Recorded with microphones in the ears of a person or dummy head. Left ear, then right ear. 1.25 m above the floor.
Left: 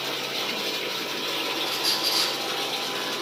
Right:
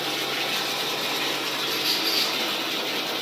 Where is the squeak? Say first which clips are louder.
Right 1 dB; 55° left (ahead or behind), 2.5 m.